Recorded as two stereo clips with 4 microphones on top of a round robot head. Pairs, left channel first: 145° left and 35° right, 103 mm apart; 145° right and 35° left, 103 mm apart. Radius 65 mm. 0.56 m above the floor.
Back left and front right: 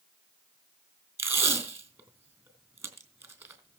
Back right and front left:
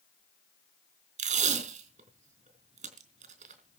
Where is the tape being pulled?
30° left, 4 m.